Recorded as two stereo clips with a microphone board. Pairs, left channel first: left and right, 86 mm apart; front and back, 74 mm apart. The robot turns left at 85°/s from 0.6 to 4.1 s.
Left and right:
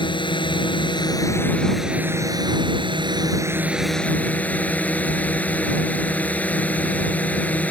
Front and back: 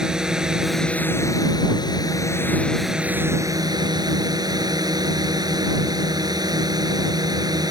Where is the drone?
100° left; by 7.7 s 160° left.